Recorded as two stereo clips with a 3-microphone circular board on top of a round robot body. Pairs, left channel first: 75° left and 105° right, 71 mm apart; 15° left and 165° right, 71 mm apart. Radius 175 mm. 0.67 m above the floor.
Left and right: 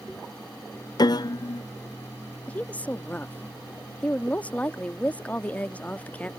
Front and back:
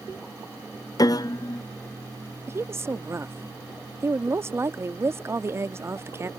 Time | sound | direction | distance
1.0 | a piano | 50° left | ?
2.5 | a woman speaking | 145° left | ?